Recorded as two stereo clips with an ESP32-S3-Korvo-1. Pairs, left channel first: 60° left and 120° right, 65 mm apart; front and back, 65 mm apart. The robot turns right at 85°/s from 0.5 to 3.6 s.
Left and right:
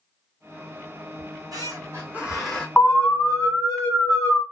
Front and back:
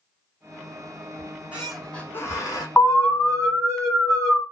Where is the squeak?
140° right, 1.4 m; by 2.7 s 15° right, 1.4 m.